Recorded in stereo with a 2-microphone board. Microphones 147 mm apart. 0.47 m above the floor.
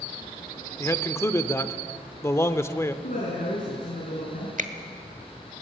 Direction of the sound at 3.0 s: 65° left (ahead or behind).